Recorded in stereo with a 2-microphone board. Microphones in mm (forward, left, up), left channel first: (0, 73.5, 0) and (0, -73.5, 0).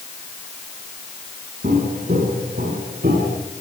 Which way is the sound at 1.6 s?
85° right.